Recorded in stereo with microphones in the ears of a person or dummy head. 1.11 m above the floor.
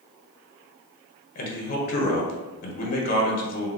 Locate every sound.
1.4 s a man speaking: 45° left (ahead or behind), 1.4 m